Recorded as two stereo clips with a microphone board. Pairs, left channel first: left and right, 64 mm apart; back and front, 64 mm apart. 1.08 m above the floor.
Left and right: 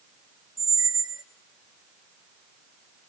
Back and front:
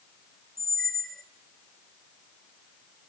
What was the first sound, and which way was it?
A squeak, 95° right.